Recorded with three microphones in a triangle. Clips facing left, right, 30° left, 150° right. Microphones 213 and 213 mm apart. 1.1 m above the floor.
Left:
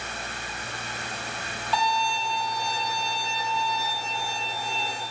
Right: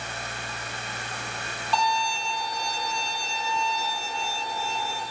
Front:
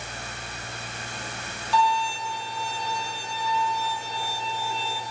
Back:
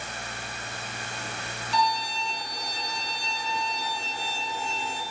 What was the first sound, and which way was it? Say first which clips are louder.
A violin: even, front 4 dB; straight ahead.